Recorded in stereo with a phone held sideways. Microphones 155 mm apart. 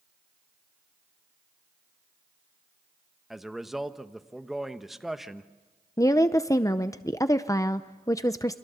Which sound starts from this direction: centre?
A man speaking, at 3.3 s.